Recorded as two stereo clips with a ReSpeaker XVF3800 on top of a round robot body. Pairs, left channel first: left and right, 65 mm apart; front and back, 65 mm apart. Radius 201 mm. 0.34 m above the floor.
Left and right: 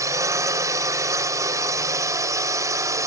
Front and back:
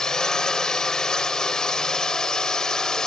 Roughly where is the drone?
Right.